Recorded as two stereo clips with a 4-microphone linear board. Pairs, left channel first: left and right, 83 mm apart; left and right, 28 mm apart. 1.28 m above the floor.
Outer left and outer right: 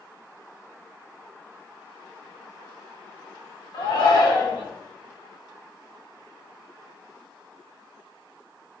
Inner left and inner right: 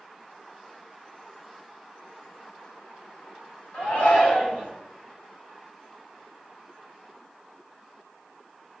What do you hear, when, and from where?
3.7 s a shout: 70° left (ahead or behind), 2 m